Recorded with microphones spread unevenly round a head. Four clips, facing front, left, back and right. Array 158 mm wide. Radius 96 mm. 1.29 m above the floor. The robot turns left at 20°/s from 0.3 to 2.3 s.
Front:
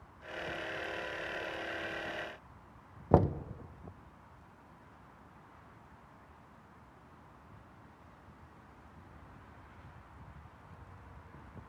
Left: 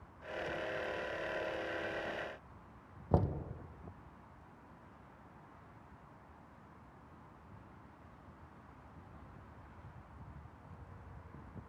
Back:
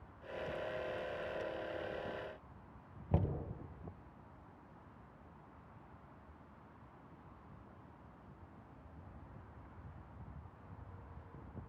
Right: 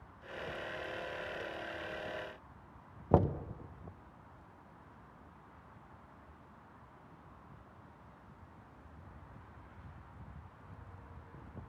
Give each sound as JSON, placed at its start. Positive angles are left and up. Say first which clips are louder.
{"t": 3.1, "sound": "knocking", "louder": "right 5 dB, front 11 dB", "azimuth_deg": -20, "distance_m": 0.9}